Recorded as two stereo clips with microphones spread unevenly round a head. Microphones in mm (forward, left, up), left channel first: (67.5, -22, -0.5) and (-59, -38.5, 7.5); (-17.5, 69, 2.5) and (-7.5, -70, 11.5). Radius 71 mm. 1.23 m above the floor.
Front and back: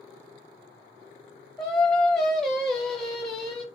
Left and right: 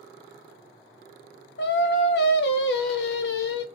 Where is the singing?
95° left, 0.8 m.